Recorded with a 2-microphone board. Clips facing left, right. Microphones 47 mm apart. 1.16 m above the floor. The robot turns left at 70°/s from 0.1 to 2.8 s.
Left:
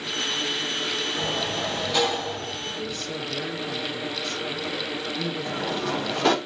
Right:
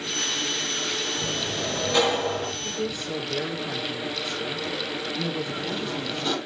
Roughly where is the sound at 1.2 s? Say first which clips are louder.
Left 2 dB; ahead left.